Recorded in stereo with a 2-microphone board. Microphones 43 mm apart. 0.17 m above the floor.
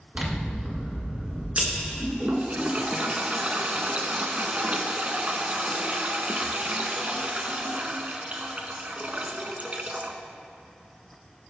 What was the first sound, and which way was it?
Scissors, 35° right (ahead or behind).